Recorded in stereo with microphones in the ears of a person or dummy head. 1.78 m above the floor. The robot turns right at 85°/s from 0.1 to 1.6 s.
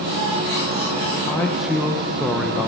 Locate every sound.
1.3 s a man speaking: 25° left (ahead or behind), 1.3 m; by 2.7 s 5° right (ahead or behind), 1.3 m